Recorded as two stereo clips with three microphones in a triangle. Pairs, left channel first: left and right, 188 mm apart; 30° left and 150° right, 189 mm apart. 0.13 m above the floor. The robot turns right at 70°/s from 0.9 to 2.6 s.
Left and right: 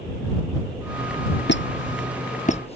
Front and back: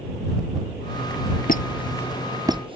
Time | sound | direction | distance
1.5 | a squeak | 70° left | ?